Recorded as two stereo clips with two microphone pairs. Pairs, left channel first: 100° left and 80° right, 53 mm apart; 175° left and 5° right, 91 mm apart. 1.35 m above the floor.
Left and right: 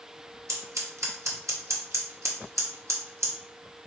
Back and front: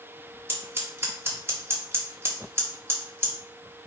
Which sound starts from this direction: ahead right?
Scissors, at 0.5 s.